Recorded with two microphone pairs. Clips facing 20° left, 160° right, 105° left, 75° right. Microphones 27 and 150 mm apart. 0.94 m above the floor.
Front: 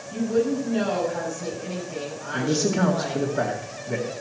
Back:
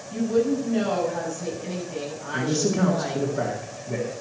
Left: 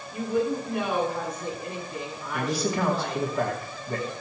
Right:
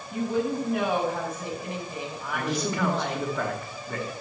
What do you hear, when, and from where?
0.1 s a woman speaking: 65° right, 6.5 m
2.3 s a man speaking: 20° left, 2.5 m